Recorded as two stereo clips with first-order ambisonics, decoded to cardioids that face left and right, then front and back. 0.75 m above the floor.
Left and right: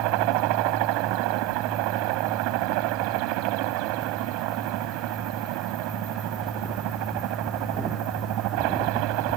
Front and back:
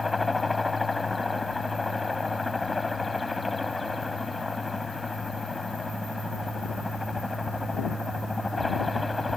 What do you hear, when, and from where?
0.0 s a helicopter: 80° right